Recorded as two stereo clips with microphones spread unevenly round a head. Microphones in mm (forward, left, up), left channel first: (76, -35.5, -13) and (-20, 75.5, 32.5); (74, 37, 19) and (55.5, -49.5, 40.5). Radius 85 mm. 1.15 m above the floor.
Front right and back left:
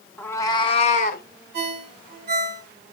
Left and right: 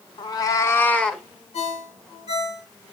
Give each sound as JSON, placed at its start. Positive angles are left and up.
{"t": 0.2, "sound": "a cat meowing", "azimuth_deg": 40, "distance_m": 0.8}
{"t": 1.5, "sound": "a ringtone", "azimuth_deg": 120, "distance_m": 3.5}